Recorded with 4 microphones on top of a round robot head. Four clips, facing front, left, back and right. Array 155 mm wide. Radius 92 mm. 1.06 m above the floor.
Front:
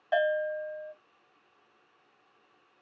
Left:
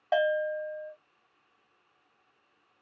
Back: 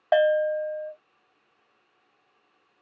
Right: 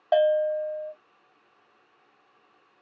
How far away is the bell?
About 1.0 m.